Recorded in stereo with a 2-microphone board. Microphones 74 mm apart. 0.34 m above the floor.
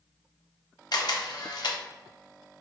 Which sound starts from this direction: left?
A camera shutter, at 0.9 s.